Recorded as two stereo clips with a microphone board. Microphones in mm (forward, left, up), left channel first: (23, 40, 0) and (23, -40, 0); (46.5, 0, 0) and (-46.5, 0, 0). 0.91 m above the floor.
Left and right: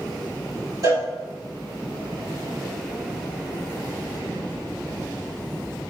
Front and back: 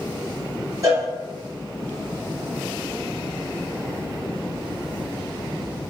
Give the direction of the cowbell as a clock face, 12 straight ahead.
4 o'clock.